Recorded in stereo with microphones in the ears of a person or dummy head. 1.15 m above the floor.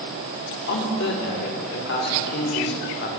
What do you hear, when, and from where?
0.7 s a man speaking: 55° left (ahead or behind), 1.3 m